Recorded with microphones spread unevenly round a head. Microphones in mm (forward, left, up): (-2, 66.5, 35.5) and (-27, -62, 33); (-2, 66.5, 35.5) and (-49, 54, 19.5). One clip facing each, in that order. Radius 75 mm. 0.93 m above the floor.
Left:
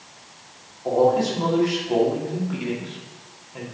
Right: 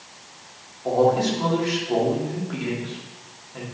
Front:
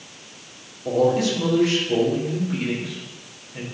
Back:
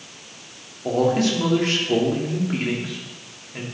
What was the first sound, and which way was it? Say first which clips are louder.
A man speaking: left 1 dB, even; 165° left.